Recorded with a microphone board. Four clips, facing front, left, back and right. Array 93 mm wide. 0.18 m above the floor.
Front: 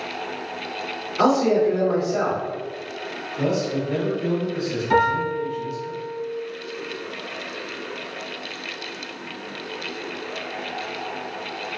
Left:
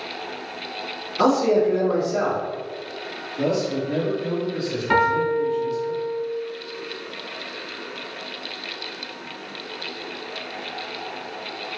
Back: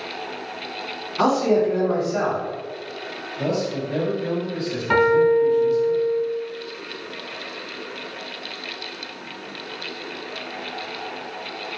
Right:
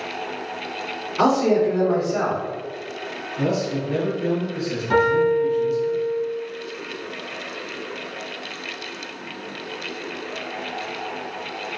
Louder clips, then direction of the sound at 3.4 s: Left 1 dB, front 1 dB; 40° right.